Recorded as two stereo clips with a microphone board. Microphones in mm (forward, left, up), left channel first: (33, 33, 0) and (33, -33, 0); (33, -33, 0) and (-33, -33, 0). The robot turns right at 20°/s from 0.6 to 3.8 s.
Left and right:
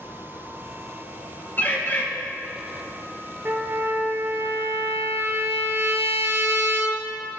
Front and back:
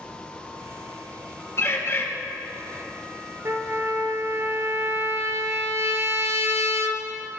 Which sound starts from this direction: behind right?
A trumpet, at 3.5 s.